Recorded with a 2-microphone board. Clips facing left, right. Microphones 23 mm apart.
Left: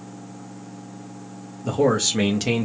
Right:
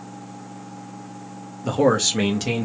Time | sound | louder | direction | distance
1.6 | a man speaking | right 1 dB | 35° right (ahead or behind) | 0.7 m